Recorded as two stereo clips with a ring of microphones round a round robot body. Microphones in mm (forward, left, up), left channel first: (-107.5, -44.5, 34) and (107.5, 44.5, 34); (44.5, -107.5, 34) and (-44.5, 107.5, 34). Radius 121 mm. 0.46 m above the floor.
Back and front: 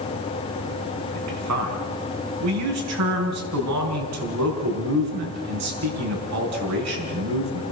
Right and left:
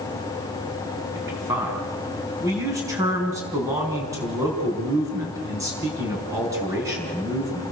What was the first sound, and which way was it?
A man speaking, 35° left.